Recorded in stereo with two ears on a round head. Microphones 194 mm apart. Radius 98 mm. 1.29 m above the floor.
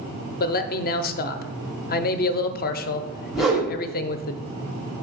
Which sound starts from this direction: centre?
A whoosh, at 3.3 s.